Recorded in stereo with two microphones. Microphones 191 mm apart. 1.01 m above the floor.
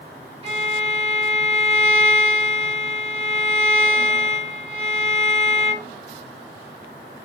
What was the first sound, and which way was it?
A violin, 30° right (ahead or behind).